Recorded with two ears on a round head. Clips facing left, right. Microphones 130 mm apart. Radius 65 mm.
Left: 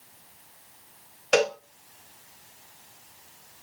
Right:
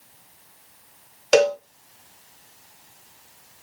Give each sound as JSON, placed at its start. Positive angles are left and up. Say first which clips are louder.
{"t": 1.3, "sound": "a cowbell", "louder": "right 6 dB", "side_deg": -35, "distance_m": 0.5}